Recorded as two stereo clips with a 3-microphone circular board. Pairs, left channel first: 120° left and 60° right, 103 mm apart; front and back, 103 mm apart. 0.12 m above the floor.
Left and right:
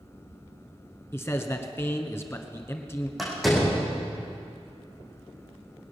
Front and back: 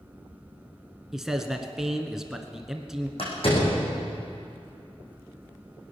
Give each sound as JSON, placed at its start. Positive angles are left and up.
{"t": 1.1, "sound": "a man speaking", "azimuth_deg": 100, "distance_m": 1.3}
{"t": 3.2, "sound": "a door slam", "azimuth_deg": 30, "distance_m": 5.0}